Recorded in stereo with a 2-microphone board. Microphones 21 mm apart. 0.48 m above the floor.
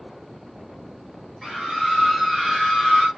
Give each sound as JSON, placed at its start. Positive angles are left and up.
{"t": 1.4, "sound": "a scream", "side_deg": 0, "distance_m": 7.5}